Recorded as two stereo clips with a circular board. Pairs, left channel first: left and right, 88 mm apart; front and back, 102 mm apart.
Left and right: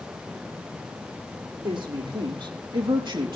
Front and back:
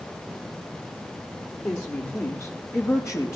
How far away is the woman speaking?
About 6.5 m.